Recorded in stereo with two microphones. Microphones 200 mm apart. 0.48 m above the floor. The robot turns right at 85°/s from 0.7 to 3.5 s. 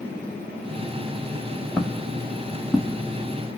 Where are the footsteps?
Centre (ahead or behind), 0.7 m; by 3.0 s 5° left (ahead or behind), 0.8 m.